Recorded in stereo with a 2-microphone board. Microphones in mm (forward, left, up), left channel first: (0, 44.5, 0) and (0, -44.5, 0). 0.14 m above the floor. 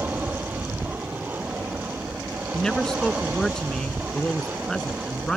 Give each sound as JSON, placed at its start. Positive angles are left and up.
{"t": 0.0, "sound": "an aircraft", "side_deg": -20}
{"t": 2.5, "sound": "a man speaking", "side_deg": 10}